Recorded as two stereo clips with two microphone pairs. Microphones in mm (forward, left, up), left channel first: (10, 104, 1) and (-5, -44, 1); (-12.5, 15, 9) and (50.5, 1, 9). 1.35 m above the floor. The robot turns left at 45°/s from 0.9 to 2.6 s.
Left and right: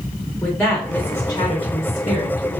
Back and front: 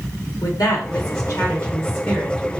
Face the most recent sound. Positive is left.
turn(degrees=90)